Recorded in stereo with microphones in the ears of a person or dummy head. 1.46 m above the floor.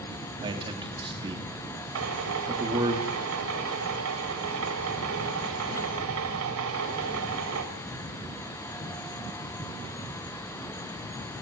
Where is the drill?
75° right (ahead or behind), 3.5 m.